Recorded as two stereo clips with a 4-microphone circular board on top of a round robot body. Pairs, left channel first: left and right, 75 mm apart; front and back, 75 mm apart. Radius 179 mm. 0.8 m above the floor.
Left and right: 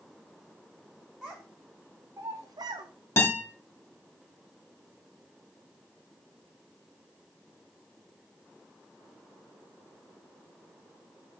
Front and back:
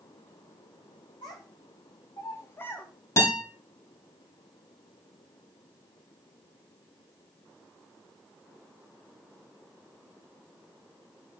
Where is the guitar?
40° left, 2.5 m.